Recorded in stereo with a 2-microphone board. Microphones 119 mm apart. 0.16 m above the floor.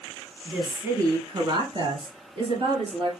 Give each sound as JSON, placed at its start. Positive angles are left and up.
{"t": 0.5, "sound": "a woman speaking", "side_deg": -5, "distance_m": 1.3}